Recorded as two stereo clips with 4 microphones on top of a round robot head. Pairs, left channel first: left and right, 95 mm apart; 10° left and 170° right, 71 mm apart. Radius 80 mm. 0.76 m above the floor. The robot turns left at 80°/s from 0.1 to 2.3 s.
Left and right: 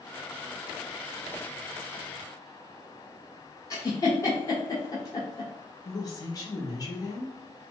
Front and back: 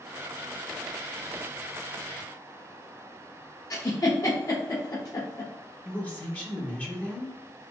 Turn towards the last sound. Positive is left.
turn(degrees=65)